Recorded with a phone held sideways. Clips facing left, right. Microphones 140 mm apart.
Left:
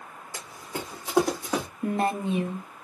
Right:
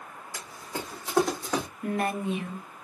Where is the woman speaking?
30° left (ahead or behind), 0.8 m.